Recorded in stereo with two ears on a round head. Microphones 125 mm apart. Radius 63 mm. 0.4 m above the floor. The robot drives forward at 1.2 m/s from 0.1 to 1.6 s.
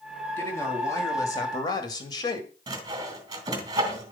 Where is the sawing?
30° right (ahead or behind), 2 m.